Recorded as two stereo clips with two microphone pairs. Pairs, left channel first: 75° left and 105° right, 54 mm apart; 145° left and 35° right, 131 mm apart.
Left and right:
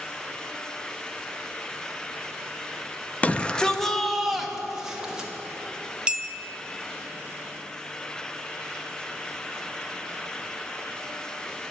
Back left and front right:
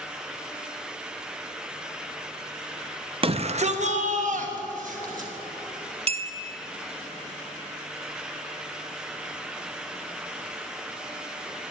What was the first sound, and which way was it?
A shout, 15° left.